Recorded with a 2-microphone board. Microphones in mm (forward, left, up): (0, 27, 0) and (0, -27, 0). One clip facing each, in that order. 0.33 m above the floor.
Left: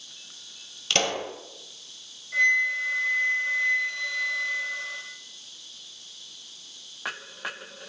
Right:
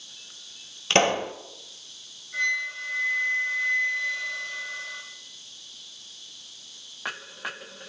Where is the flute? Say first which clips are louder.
Left 5 dB; 80° left, 4 m.